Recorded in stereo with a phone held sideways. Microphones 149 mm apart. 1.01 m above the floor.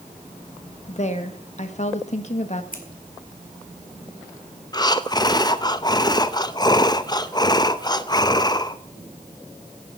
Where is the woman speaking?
50° left (ahead or behind), 1.4 m.